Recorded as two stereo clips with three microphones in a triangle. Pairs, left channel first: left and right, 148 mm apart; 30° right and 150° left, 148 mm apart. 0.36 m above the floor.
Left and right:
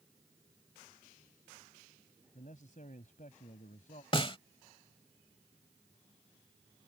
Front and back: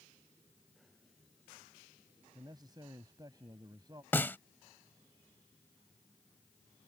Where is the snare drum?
45° left.